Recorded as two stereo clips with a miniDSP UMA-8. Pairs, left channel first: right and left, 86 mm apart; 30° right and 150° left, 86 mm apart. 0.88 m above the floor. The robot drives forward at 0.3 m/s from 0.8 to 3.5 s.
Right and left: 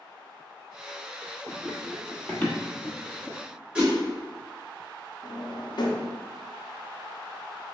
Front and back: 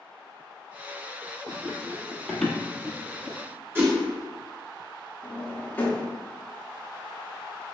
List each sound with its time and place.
1.5 s running footsteps: 30° left, 1.1 m; by 3.4 s 135° right, 1.4 m
3.8 s a whoosh: 155° left, 1.0 m
5.2 s a drawer: 90° right, 0.6 m